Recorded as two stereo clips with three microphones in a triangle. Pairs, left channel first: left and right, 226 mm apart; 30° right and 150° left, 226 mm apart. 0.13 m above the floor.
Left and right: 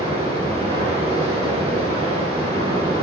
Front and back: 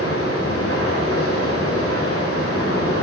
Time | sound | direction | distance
0.0 | running water | 25° right | 4.5 m